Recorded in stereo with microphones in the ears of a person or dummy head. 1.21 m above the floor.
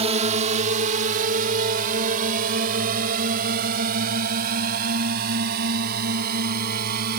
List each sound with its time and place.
0.0 s a drone: 30° right (ahead or behind); by 7.2 s 50° right (ahead or behind)